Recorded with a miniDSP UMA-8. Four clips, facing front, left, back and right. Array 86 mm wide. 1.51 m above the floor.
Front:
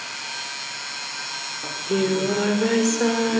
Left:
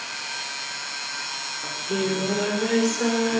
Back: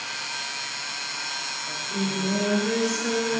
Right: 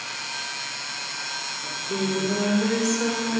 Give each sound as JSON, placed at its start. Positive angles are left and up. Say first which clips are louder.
{"t": 1.6, "sound": "singing", "louder": "left 2 dB, front 8 dB", "azimuth_deg": 10, "distance_m": 4.5}